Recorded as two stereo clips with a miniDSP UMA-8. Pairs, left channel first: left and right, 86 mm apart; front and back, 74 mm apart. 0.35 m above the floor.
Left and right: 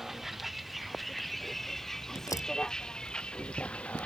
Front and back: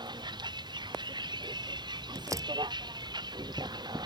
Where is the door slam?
140° left.